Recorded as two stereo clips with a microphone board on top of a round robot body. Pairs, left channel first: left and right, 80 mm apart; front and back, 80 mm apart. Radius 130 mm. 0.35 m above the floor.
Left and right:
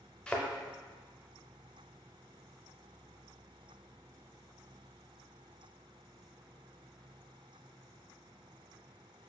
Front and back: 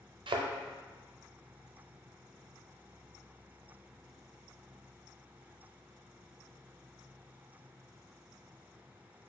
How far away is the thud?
About 0.6 m.